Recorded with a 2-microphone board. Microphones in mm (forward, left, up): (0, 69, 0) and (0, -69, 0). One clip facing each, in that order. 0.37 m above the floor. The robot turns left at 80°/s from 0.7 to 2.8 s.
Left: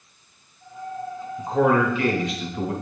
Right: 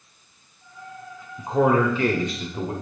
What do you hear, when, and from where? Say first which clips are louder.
1.4 s a man speaking: even; 20° right, 1.0 m; by 2.7 s 130° right, 1.0 m